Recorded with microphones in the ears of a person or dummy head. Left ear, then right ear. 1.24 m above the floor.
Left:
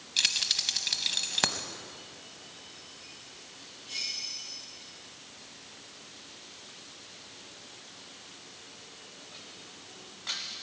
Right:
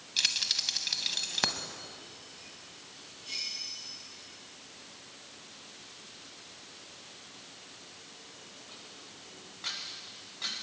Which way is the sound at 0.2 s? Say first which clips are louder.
Left 2 dB; 5° left (ahead or behind).